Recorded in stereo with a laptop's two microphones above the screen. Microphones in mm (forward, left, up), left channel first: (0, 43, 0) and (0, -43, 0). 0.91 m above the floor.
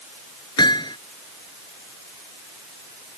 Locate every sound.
0.6 s hammering: 60° left (ahead or behind)